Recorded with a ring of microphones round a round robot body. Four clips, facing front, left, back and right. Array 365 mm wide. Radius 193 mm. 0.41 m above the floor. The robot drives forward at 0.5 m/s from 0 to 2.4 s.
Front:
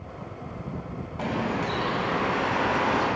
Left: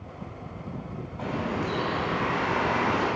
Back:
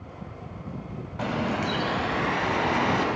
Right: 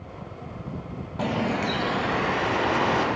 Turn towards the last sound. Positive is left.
turn(degrees=-145)